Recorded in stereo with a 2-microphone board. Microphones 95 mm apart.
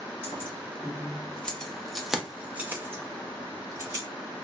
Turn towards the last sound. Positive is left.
turn(degrees=-35)  # may be behind; listen again after turning